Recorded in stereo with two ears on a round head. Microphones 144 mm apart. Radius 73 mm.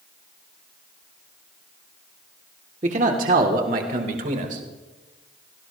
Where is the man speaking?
40° right (ahead or behind), 1.5 m; by 4.6 s 50° right (ahead or behind), 2.5 m.